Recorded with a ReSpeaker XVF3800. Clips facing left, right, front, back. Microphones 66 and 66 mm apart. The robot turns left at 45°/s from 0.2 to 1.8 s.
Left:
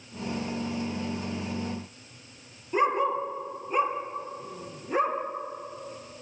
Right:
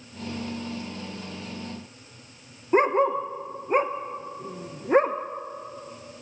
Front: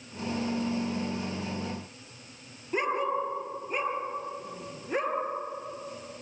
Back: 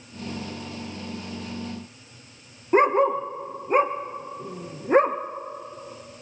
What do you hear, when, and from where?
2.7 s a dog barking: 135° right, 1.7 m